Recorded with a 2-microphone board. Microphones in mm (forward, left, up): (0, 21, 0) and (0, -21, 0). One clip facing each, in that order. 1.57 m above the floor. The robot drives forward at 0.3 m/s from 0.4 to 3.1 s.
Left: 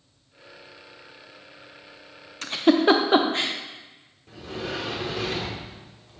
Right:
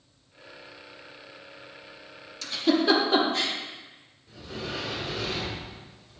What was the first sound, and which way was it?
A giggle, 45° left (ahead or behind).